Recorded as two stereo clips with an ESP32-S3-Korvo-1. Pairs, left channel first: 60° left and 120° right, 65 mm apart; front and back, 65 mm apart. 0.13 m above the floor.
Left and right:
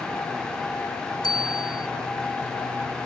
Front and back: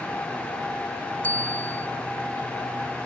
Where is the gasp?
No gasp in this recording.